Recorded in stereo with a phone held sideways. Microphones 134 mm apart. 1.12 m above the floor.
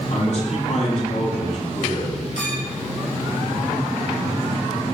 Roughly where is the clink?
Left.